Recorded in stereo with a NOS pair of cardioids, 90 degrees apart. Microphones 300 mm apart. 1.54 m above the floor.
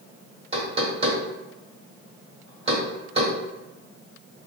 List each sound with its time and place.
0.5 s knocking: 20° right, 1.4 m